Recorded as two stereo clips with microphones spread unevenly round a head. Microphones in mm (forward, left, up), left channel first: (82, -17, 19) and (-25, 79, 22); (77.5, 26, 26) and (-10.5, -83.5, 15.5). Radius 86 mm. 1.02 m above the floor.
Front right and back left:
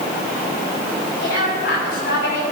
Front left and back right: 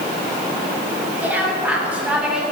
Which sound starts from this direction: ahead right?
A woman speaking, at 1.2 s.